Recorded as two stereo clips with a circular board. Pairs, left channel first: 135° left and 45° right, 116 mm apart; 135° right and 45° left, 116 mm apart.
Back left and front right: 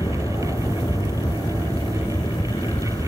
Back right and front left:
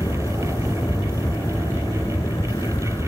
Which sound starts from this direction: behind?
An aircraft, at 0.0 s.